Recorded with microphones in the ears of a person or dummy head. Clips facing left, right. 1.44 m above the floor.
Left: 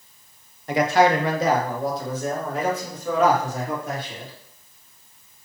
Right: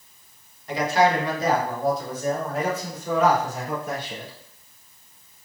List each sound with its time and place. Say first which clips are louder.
0.7 s a man speaking: left 3 dB; 50° left (ahead or behind), 0.6 m; by 4.3 s 65° left (ahead or behind), 2.5 m